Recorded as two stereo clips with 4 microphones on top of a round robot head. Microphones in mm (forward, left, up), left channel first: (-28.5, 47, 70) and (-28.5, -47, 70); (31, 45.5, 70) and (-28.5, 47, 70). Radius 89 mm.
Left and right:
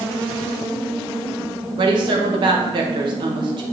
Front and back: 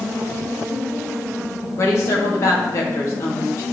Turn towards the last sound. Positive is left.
turn(degrees=-50)